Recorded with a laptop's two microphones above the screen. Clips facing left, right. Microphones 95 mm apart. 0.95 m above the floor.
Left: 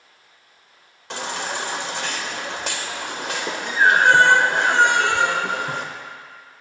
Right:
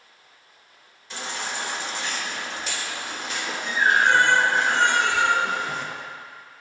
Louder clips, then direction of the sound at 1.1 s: Left 4 dB; 75° left (ahead or behind).